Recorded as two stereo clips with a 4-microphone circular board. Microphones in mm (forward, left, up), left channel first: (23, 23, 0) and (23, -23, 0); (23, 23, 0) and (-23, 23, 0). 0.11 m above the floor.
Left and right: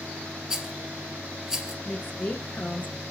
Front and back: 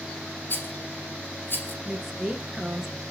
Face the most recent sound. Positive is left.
turn(degrees=100)